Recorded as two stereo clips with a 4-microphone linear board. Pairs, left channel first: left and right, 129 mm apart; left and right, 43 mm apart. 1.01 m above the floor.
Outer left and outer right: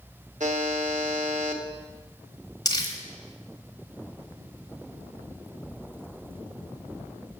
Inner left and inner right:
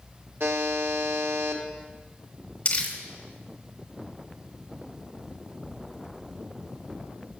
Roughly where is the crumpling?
Left.